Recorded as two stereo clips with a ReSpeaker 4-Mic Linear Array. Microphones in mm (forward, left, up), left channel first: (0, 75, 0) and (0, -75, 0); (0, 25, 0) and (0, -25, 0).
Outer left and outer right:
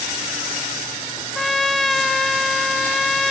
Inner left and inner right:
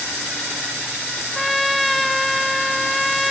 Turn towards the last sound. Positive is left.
turn(degrees=0)  # may be behind; listen again after turning